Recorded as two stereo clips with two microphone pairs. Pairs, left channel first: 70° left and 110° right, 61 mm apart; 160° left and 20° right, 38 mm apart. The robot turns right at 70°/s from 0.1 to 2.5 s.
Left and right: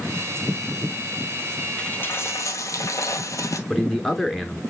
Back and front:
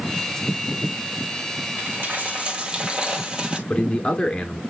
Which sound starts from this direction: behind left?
A man speaking, at 3.7 s.